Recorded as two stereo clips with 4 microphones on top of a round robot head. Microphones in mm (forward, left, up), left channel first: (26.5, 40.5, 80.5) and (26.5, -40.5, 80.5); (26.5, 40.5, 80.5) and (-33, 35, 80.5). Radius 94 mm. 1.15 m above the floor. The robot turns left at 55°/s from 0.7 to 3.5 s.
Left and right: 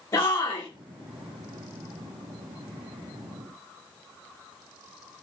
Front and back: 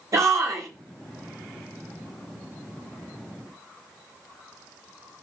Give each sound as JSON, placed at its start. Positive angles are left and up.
{"t": 0.1, "sound": "a shout", "azimuth_deg": 145, "distance_m": 1.5}